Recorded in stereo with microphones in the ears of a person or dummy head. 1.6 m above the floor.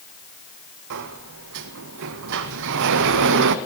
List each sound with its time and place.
0.9 s a sliding door: 65° right (ahead or behind), 0.6 m